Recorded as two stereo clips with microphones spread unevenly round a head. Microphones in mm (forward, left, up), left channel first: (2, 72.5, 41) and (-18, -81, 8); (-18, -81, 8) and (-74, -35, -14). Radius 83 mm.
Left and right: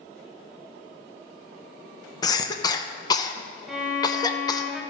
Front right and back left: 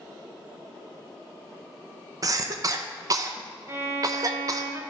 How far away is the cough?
About 0.7 m.